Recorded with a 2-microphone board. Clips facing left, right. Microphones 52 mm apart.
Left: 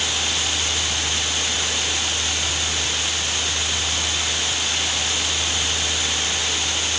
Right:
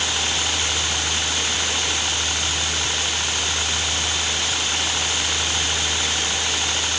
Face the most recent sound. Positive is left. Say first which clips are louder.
# right 1 dB
turn(degrees=-35)  # may be behind; listen again after turning